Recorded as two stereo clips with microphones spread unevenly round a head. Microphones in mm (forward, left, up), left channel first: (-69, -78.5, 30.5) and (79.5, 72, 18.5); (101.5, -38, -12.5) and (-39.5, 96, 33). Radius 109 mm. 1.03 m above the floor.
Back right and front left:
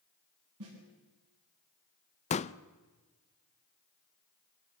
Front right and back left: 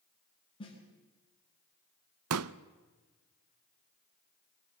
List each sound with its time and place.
0.6 s a snare drum: 25° left, 9.5 m
2.3 s a pop: 165° left, 0.6 m